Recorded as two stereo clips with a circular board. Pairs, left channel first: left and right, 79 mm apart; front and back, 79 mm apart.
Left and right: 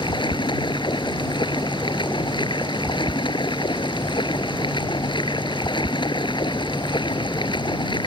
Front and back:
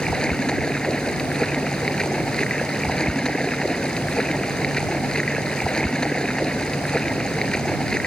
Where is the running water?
80° left.